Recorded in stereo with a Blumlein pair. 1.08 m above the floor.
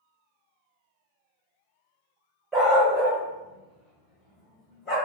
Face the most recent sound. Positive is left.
turn(degrees=15)